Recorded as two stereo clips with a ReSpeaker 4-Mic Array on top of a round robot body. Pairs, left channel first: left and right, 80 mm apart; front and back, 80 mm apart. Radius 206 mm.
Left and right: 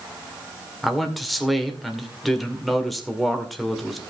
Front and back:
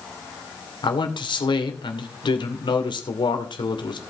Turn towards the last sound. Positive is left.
turn(degrees=0)